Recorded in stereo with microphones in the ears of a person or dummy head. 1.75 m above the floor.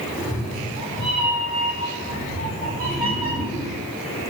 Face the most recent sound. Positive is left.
turn(degrees=-30)  # may be behind; listen again after turning